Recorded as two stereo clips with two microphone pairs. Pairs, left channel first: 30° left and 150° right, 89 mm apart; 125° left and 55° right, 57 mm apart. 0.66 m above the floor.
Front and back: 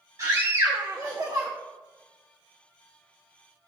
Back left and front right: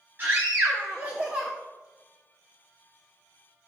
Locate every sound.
0.2 s a scream: 100° right, 1.6 m; by 1.5 s 120° right, 1.0 m